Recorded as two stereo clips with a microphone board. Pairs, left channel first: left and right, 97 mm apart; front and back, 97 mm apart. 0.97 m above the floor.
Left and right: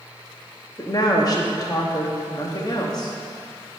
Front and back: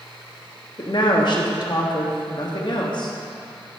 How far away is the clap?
I don't hear a clap.